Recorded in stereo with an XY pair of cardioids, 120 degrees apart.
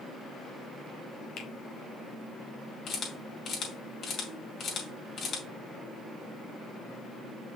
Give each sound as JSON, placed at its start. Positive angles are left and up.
{"t": 1.4, "sound": "a finger snap", "azimuth_deg": 55, "distance_m": 2.0}
{"t": 2.9, "sound": "a camera shutter", "azimuth_deg": 50, "distance_m": 3.0}